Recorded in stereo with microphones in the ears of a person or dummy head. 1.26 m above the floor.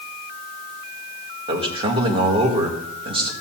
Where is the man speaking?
25° right (ahead or behind), 1.8 m.